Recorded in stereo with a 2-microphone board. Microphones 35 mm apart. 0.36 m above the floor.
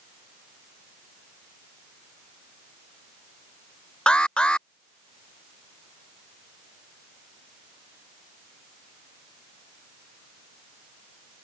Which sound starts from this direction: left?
An alarm, at 4.1 s.